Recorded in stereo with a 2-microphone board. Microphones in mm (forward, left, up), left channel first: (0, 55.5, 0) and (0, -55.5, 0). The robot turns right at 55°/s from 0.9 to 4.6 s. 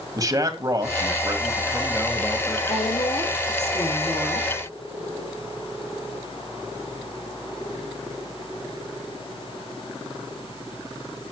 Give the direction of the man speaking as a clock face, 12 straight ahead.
2 o'clock.